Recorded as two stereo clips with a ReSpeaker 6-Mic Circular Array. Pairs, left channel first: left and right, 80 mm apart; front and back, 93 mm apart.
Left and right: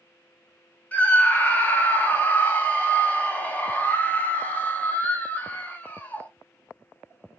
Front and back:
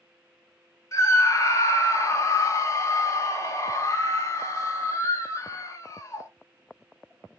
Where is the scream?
30° left, 1.1 m.